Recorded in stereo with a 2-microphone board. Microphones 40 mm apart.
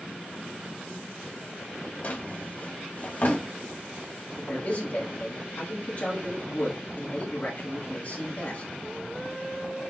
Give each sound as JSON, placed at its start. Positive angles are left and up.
{"t": 2.0, "sound": "a drawer", "side_deg": 45, "distance_m": 0.9}
{"t": 4.4, "sound": "a man speaking", "side_deg": 40, "distance_m": 1.3}